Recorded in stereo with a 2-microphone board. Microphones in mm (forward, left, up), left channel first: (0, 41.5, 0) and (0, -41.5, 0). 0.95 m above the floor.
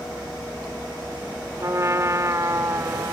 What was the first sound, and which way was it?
A trumpet, 40° right (ahead or behind).